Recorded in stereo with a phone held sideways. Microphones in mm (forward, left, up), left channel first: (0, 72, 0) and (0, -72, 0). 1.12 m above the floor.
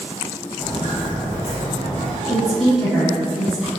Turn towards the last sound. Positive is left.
turn(degrees=5)  # may be behind; listen again after turning